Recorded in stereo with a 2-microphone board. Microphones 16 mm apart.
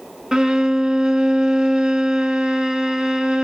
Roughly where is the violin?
Right.